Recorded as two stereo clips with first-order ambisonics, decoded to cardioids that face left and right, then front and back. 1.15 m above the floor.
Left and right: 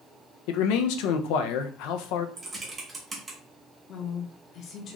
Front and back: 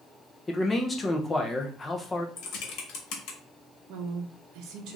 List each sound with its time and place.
0.5 s a man speaking: 75° left, 0.6 m
2.4 s typing on a keyboard: 20° right, 0.9 m
3.9 s a woman speaking: 145° left, 0.8 m